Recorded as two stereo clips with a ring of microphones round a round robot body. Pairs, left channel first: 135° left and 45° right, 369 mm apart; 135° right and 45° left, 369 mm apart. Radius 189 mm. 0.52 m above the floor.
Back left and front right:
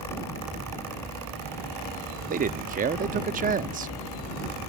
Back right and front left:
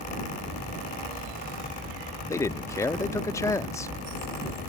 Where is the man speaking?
65° right.